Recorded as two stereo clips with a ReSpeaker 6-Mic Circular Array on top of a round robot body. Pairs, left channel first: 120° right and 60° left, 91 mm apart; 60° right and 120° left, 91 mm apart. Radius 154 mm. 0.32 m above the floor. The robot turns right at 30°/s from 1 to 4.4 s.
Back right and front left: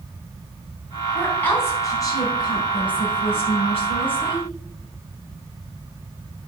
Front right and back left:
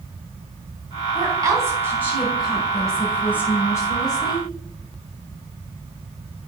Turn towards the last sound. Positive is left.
turn(degrees=-100)